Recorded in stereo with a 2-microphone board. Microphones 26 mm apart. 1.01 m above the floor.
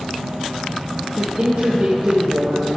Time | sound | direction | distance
1.2 | a woman speaking | 55° right (ahead or behind) | 1.0 m